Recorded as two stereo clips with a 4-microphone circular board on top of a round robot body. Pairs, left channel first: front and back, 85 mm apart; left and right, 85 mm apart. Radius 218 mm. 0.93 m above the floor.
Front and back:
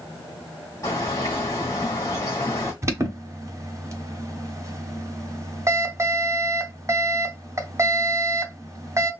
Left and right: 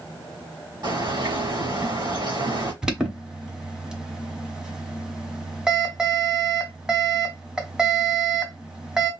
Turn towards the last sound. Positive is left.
turn(degrees=-165)